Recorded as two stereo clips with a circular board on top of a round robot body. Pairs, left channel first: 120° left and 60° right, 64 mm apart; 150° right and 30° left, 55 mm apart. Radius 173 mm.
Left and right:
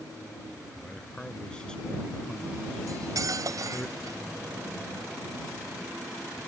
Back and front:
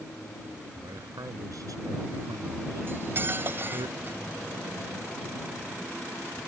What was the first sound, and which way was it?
A man speaking, 45° left.